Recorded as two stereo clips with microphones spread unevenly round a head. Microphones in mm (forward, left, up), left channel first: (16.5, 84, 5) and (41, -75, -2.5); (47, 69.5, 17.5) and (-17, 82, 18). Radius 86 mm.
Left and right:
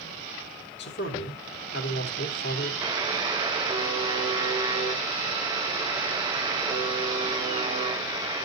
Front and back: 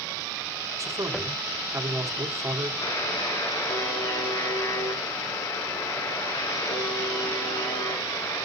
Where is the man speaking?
130° left, 2.5 m.